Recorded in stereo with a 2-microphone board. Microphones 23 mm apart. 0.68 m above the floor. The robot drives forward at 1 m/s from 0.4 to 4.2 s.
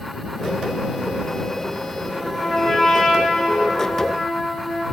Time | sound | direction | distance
2.0 | a trumpet | 5° left (ahead or behind) | 1.0 m